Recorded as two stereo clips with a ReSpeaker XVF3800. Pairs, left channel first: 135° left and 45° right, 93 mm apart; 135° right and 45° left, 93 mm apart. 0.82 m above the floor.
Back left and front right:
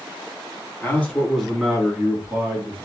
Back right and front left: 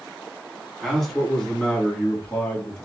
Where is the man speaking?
135° left, 0.9 m; by 2.9 s 75° right, 1.1 m.